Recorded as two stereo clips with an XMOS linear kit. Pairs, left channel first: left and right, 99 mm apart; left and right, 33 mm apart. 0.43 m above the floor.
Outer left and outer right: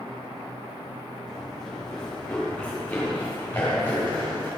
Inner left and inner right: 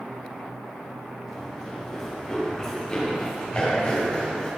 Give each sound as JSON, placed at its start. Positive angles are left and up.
{"t": 1.3, "sound": "running footsteps", "side_deg": 0, "distance_m": 7.5}